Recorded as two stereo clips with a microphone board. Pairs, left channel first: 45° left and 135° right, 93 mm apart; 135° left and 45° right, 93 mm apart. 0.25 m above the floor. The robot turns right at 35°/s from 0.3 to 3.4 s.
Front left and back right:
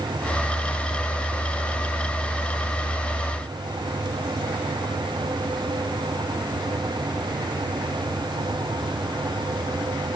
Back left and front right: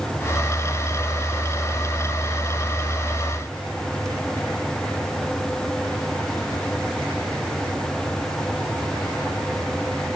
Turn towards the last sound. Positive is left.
No sound to turn to.